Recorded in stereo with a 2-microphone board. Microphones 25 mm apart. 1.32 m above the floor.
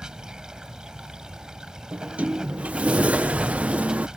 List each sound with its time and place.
0.0 s running water: 30° right (ahead or behind)
1.9 s a sliding door: 65° right (ahead or behind)